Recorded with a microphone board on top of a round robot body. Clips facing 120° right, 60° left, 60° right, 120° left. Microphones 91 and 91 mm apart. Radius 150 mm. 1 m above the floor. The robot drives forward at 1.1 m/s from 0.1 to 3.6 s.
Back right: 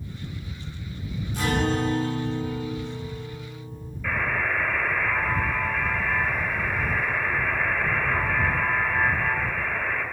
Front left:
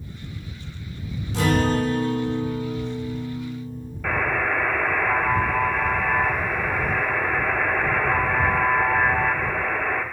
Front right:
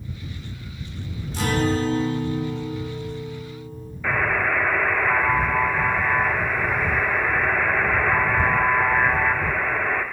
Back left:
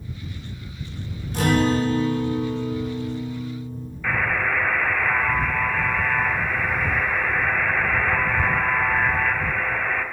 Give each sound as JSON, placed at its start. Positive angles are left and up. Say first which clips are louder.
{"t": 1.3, "sound": "a guitar", "louder": "front left 4 dB, back left 3 dB", "azimuth_deg": 80, "distance_m": 3.0}
{"t": 4.0, "sound": "a buzzer", "louder": "front left 3 dB, front right 1 dB", "azimuth_deg": 25, "distance_m": 1.5}